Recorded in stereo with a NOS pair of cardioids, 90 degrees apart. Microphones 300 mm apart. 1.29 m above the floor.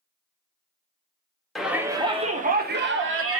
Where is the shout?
Straight ahead, 1.1 m; by 3.4 s 50° right, 1.4 m.